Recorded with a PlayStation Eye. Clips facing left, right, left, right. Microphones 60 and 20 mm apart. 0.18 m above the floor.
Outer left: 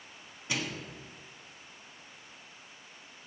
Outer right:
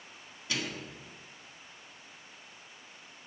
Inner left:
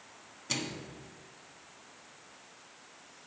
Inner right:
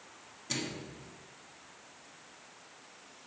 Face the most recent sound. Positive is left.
turn(degrees=20)  # may be behind; listen again after turning